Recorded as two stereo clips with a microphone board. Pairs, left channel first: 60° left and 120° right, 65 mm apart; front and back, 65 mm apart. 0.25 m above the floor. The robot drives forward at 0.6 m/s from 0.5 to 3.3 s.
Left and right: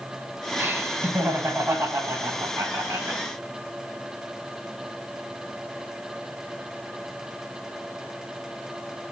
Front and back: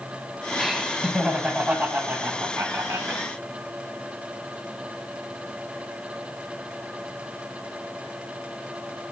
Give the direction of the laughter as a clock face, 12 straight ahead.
3 o'clock.